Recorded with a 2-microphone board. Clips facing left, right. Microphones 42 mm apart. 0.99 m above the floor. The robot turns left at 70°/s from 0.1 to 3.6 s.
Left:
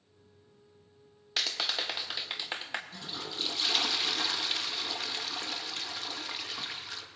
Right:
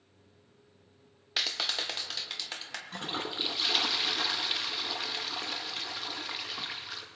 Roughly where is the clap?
Centre.